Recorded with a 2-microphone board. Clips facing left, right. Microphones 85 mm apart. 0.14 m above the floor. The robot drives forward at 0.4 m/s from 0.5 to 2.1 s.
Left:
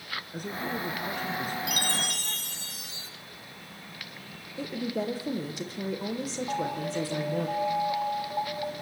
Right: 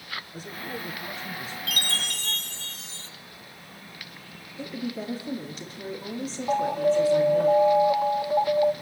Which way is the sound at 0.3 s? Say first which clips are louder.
Left 5 dB; 55° left (ahead or behind).